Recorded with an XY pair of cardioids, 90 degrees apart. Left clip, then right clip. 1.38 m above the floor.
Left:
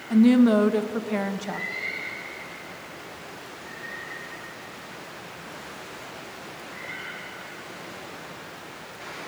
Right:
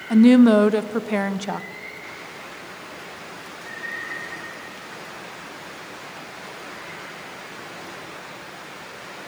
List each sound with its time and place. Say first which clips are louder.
0.1 s a woman speaking: right 5 dB; 45° right, 0.6 m